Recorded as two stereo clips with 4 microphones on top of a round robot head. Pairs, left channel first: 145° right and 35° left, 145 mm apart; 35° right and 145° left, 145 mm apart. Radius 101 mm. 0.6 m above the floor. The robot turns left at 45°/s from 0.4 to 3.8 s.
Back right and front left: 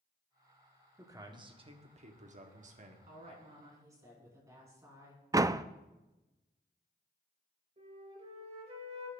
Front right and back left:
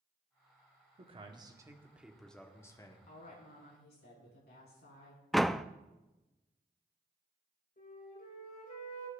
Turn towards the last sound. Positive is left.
turn(degrees=-10)